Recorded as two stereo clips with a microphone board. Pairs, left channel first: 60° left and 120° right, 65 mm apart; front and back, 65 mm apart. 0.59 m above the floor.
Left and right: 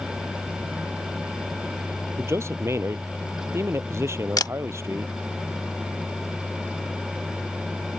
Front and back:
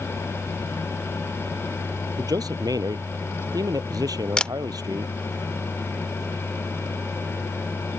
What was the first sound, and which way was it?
A man speaking, 165° right.